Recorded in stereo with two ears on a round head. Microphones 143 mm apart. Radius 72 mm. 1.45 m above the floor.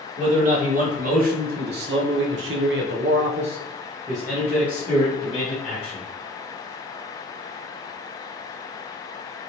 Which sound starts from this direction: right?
A man speaking, at 0.2 s.